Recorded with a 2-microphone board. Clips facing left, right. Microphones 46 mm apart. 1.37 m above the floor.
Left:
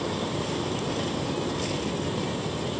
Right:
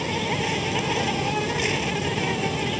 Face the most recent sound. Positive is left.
turn(degrees=-55)  # may be behind; listen again after turning